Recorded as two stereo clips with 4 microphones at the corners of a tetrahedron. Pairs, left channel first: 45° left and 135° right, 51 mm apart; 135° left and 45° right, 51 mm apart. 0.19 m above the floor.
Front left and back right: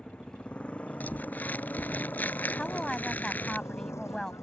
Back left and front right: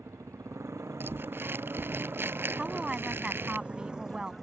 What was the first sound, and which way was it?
A motorcycle, 25° right.